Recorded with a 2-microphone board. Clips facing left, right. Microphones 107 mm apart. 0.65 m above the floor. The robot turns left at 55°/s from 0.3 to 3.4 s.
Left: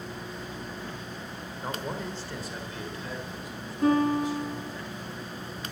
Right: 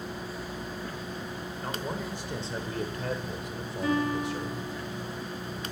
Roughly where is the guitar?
Left.